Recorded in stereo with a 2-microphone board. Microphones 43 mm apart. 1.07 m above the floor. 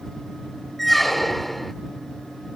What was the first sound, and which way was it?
A squeak, 5° left (ahead or behind).